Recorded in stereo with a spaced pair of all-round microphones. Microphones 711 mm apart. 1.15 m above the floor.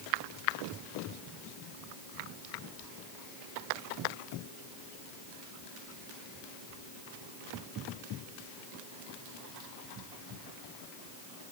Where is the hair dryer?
No hair dryer in this recording.